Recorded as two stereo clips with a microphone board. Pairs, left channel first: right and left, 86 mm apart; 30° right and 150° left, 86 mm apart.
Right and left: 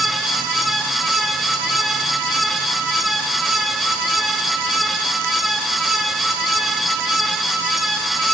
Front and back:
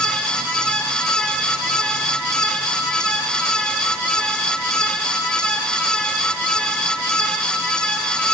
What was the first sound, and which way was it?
Only background noise.